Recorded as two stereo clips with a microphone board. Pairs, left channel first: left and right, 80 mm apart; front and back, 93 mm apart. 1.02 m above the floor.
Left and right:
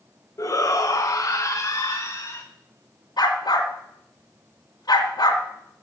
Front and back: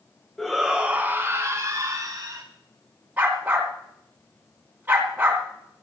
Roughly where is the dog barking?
Left.